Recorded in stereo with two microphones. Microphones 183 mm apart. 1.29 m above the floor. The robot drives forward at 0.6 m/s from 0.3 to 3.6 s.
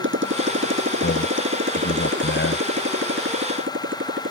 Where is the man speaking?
85° left.